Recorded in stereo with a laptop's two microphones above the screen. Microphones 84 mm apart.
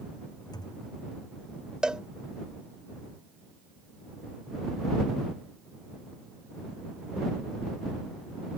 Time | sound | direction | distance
0.5 | a thud | 60° left (ahead or behind) | ?
1.8 | a cowbell | 10° right (ahead or behind) | ?